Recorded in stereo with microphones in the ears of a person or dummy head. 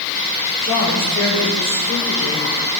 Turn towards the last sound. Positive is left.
turn(degrees=80)